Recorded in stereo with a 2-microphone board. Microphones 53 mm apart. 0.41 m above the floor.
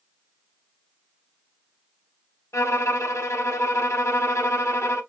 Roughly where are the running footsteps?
I don't hear running footsteps.